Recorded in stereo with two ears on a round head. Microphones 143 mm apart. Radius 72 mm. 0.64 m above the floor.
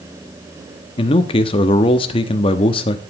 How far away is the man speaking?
About 0.9 m.